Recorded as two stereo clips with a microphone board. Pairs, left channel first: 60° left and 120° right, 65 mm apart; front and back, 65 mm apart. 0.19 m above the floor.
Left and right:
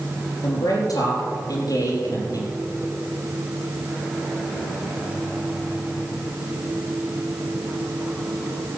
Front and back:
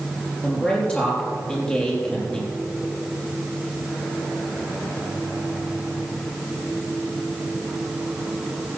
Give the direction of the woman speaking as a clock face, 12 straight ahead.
10 o'clock.